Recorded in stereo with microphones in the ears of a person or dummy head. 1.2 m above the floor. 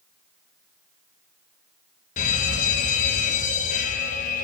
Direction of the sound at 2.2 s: 50° left (ahead or behind).